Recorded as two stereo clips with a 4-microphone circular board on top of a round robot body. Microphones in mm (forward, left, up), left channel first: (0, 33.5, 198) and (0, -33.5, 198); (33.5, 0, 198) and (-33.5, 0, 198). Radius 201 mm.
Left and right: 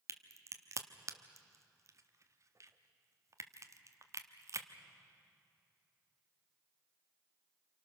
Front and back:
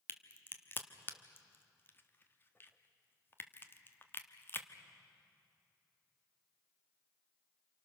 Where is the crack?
55° right, 1.4 m.